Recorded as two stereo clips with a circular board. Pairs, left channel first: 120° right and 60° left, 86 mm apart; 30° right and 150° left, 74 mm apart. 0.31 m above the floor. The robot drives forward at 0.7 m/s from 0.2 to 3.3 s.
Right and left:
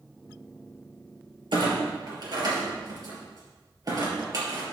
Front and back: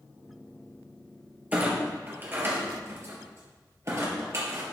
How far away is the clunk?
About 3.5 m.